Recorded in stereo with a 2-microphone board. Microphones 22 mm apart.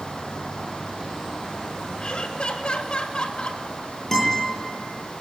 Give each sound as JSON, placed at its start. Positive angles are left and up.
{"t": 2.0, "sound": "laughter", "side_deg": 50, "distance_m": 2.5}
{"t": 4.1, "sound": "a guitar", "side_deg": 15, "distance_m": 9.5}